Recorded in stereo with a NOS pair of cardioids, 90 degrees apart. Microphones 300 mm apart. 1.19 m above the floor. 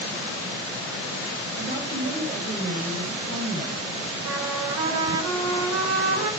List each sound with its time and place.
1.6 s a woman speaking: 35° right, 7 m
4.2 s a trumpet: 60° right, 4.5 m